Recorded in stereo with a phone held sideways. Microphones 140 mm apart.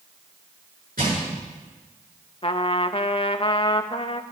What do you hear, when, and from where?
1.0 s crushing: 90° right, 8 m
2.4 s a trumpet: 40° left (ahead or behind), 0.6 m